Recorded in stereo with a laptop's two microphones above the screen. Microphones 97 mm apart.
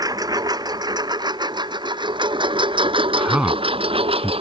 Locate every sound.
0.0 s a lawn mower: 40° right (ahead or behind); by 4.4 s 75° right (ahead or behind)
3.2 s a man speaking: 10° right (ahead or behind)